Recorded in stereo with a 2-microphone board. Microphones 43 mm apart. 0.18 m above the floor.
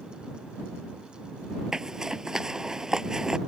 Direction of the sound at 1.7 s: 15° right (ahead or behind).